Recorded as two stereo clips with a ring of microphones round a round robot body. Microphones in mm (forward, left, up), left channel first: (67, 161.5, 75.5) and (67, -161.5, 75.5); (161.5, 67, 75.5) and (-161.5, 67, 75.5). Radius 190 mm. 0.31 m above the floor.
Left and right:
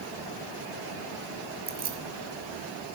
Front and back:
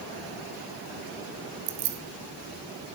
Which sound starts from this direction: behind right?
Keys jangling, at 1.7 s.